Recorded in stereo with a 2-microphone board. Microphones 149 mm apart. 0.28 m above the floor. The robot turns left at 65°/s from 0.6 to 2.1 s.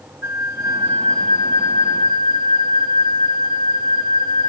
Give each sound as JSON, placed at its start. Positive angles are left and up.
{"t": 0.2, "sound": "a flute", "azimuth_deg": -20, "distance_m": 0.9}